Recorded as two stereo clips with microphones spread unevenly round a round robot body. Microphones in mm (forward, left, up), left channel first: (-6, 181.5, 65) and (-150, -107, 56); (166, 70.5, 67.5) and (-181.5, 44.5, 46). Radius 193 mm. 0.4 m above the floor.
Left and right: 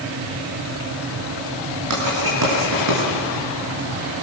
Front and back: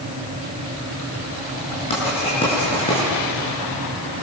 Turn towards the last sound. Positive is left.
turn(degrees=-70)